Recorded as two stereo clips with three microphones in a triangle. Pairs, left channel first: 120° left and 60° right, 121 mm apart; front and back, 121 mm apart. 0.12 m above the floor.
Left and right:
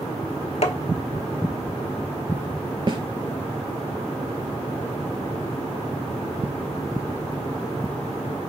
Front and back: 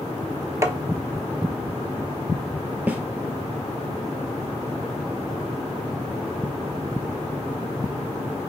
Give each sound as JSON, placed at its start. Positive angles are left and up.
{"t": 0.6, "sound": "tapping", "azimuth_deg": 115, "distance_m": 0.5}
{"t": 2.9, "sound": "a snare drum", "azimuth_deg": -105, "distance_m": 0.6}